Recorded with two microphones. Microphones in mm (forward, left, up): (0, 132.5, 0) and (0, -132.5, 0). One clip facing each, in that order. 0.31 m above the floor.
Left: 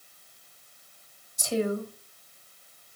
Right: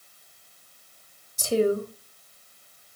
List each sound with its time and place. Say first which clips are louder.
1.4 s a woman speaking: right 5 dB; 35° right (ahead or behind), 1.2 m